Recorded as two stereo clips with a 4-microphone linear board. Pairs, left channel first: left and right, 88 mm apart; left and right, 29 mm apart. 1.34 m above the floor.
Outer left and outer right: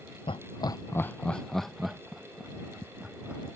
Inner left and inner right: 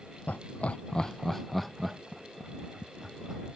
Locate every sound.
0.3 s laughter: 80° left; by 3.4 s 15° right (ahead or behind)